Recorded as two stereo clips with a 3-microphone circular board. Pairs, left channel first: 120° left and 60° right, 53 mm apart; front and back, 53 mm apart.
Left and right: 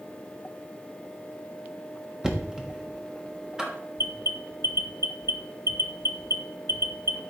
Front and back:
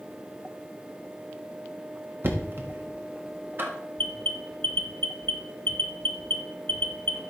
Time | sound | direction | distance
2.2 | knocking | 140° right | 1.3 m
4.0 | an alarm | 45° right | 0.7 m